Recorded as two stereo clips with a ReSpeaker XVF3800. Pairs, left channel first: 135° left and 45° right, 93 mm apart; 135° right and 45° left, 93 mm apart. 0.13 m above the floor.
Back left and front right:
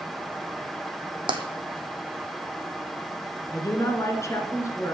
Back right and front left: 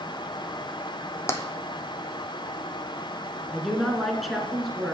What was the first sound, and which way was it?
Tapping, 75° right.